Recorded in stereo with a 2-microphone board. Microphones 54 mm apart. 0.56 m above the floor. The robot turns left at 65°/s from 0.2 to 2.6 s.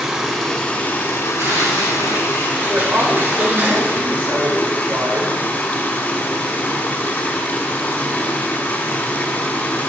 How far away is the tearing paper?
About 3 m.